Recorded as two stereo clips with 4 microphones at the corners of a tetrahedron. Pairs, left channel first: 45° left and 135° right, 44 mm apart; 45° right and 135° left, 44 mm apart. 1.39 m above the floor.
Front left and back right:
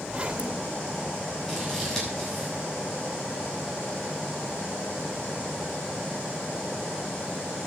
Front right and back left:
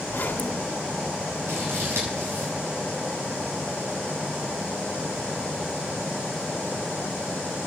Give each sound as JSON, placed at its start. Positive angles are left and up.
{"t": 0.1, "sound": "a zipper", "azimuth_deg": -80, "distance_m": 1.5}
{"t": 1.5, "sound": "scissors", "azimuth_deg": 125, "distance_m": 8.0}